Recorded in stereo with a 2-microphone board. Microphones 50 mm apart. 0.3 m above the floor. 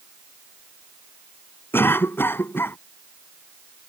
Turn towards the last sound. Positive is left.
turn(degrees=50)  # may be behind; listen again after turning